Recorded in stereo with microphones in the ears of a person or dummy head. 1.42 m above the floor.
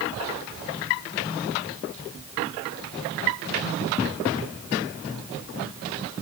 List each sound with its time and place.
Only background noise.